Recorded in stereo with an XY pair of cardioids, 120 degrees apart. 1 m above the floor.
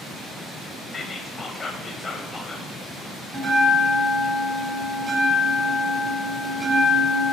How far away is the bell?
About 1.7 m.